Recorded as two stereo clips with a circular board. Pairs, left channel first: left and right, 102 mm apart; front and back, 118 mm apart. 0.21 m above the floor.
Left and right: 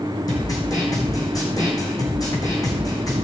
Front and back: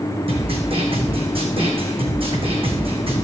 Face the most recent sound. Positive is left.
turn(degrees=140)